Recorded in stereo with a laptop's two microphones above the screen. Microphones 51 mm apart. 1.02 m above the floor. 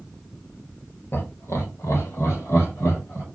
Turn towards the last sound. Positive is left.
turn(degrees=55)  # may be behind; listen again after turning